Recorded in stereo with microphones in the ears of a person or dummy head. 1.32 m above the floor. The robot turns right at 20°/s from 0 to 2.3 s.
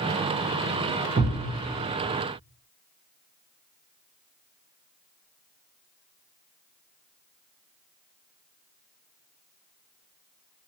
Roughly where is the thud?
Right.